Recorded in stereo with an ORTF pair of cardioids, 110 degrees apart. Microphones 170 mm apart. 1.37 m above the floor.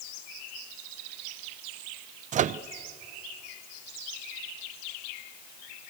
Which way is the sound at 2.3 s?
45° right.